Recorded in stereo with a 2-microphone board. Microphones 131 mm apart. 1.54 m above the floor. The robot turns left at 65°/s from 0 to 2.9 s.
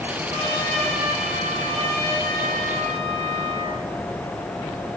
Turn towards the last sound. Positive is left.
turn(degrees=160)